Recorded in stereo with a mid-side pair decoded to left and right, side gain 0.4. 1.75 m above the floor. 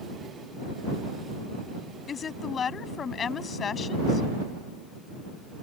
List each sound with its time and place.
2.1 s a woman speaking: 55° left